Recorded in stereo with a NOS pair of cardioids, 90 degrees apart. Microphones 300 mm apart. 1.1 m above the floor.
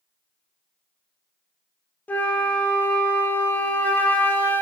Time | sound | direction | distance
2.1 | a flute | 5° left | 0.5 m